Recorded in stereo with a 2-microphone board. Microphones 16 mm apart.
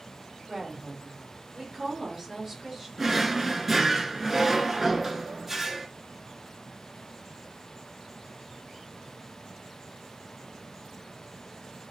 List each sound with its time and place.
0.5 s a woman speaking: 45° right (ahead or behind), 2.5 m; by 2.9 s 20° right (ahead or behind), 2 m
3.0 s a drawer: 20° right (ahead or behind), 0.6 m